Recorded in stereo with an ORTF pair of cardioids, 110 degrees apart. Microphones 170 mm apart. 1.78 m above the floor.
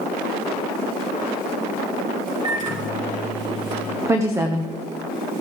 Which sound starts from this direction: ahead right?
A microwave, at 2.4 s.